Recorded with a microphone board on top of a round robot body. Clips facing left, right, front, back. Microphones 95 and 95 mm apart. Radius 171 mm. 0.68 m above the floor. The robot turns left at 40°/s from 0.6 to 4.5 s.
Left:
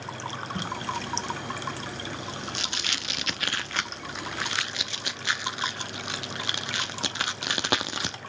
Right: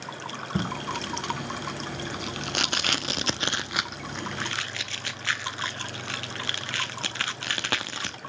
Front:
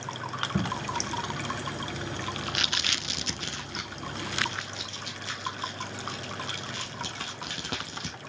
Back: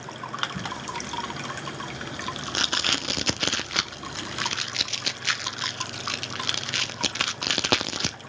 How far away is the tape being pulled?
About 0.6 m.